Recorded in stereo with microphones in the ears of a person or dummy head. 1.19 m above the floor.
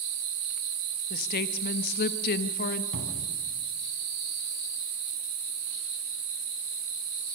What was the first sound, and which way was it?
A woman speaking, 55° left (ahead or behind).